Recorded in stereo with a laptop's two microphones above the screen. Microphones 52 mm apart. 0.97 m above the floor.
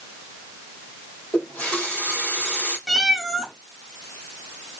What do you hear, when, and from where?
1.3 s a running tap: 30° left (ahead or behind), 1.6 m
2.9 s a cat meowing: centre (ahead or behind), 0.6 m